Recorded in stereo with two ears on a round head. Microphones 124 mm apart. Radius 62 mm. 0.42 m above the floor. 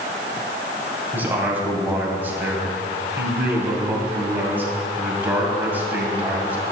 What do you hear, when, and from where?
1.1 s a man speaking: 15° right (ahead or behind), 2 m